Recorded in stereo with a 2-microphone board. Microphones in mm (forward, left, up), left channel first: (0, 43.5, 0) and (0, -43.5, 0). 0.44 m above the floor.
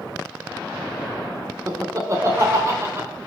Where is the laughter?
40° right (ahead or behind), 1.0 m; by 3.1 s 30° right (ahead or behind), 1.6 m.